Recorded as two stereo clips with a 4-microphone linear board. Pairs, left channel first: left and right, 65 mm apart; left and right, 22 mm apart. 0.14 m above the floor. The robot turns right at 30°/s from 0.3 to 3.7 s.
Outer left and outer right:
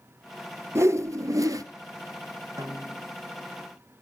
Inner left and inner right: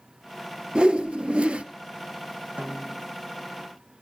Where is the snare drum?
60° right (ahead or behind), 2 m; by 3.1 s 45° right (ahead or behind), 2 m.